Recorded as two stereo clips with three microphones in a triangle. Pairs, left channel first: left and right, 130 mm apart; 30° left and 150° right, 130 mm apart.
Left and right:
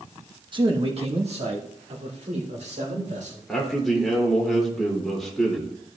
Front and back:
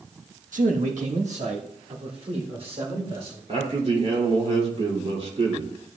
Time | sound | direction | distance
0.5 | a man speaking | 145° right | 1.1 m
3.5 | a man speaking | 175° left | 3 m